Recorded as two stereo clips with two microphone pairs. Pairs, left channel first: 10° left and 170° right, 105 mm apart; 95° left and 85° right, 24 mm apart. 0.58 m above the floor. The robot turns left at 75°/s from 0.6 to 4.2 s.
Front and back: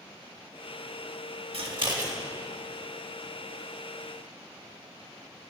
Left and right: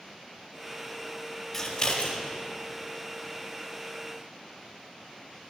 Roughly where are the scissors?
Behind.